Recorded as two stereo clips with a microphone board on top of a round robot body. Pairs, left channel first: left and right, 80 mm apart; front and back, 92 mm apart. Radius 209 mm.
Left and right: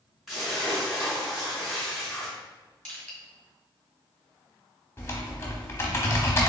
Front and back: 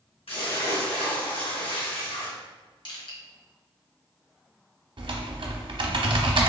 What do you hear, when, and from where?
0.3 s a splash: straight ahead, 1.8 m
2.9 s crushing: 15° left, 1.7 m
5.0 s typing on a keyboard: 145° left, 0.8 m